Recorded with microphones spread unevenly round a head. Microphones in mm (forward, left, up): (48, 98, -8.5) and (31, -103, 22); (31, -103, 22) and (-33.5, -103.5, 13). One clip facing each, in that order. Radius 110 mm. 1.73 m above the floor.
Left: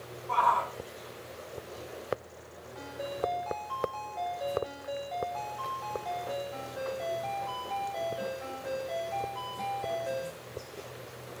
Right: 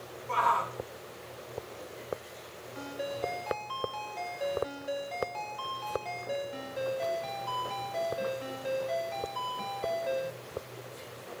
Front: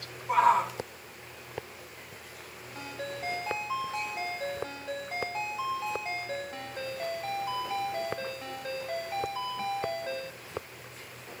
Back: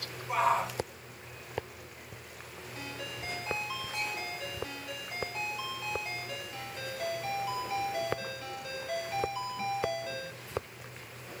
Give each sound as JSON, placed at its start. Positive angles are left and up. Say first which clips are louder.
{"t": 0.3, "sound": "a shout", "louder": "left 1 dB, front 5 dB", "azimuth_deg": -35, "distance_m": 5.5}
{"t": 2.8, "sound": "a ringtone", "louder": "even, front 4 dB", "azimuth_deg": -45, "distance_m": 5.5}